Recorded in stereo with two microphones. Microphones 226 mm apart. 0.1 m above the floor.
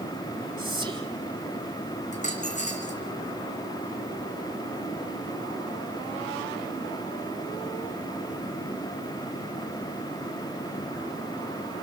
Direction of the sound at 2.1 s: 30° left (ahead or behind).